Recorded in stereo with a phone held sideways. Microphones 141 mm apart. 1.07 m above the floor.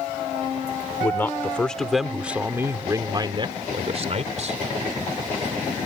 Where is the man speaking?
20° left (ahead or behind); by 4.6 s 55° right (ahead or behind).